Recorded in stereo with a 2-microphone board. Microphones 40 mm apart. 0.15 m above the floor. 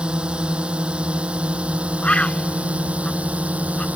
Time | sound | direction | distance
0.0 | a drone | 25° right (ahead or behind) | ?
2.0 | a bird | 30° left (ahead or behind) | ?